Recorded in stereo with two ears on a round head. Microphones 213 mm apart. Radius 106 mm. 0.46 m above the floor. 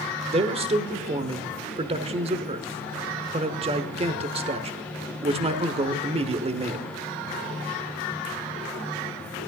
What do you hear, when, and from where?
0.3 s a man speaking: 25° right (ahead or behind), 1.0 m